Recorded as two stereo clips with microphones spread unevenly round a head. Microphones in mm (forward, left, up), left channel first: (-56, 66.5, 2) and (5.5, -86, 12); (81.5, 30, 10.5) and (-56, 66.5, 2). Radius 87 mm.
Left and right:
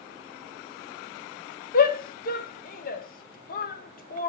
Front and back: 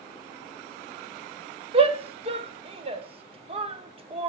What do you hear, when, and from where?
1.7 s a shout: 125° left, 1.2 m